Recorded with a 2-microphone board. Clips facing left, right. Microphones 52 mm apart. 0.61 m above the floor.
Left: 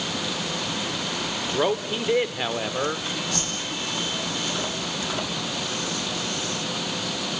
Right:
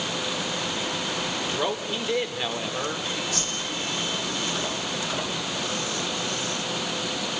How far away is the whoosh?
About 7.5 m.